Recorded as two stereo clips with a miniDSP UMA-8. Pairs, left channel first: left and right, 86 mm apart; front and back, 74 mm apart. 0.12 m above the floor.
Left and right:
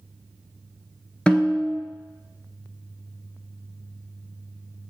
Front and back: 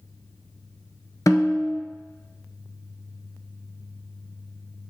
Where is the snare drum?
15° left, 0.7 m.